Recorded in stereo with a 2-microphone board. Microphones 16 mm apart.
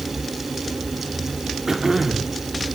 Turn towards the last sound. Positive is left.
turn(degrees=-20)  # may be behind; listen again after turning